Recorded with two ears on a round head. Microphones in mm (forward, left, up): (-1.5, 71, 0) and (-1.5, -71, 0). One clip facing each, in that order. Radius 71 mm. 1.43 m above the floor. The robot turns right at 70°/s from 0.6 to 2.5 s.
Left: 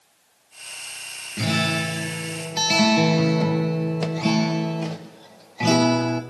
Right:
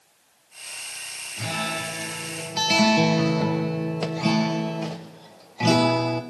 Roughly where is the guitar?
Left.